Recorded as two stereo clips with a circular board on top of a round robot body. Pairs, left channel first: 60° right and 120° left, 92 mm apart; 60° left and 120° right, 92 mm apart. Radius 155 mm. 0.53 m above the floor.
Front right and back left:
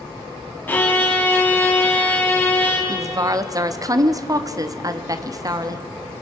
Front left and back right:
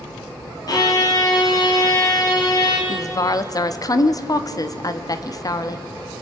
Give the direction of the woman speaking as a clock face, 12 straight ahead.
9 o'clock.